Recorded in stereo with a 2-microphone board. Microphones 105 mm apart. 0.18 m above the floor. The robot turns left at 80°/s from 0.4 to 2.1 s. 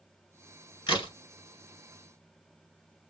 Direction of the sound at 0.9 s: 50° left (ahead or behind).